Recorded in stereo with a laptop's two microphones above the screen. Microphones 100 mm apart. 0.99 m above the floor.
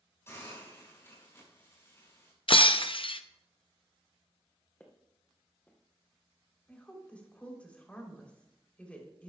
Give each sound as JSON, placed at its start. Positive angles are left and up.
{"t": 0.3, "sound": "a hiss", "side_deg": 25, "distance_m": 5.5}
{"t": 2.5, "sound": "breaking glass", "side_deg": 60, "distance_m": 0.5}
{"t": 4.8, "sound": "footsteps", "side_deg": 15, "distance_m": 2.5}
{"t": 6.7, "sound": "a woman speaking", "side_deg": 10, "distance_m": 3.5}